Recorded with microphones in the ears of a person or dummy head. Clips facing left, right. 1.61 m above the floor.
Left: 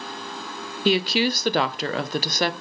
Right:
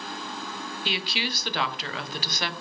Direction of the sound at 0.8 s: 45° left (ahead or behind).